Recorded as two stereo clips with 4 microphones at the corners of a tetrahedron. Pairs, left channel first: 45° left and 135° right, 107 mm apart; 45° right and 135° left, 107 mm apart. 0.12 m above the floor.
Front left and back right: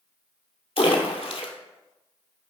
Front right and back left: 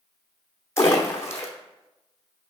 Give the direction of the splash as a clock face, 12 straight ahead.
11 o'clock.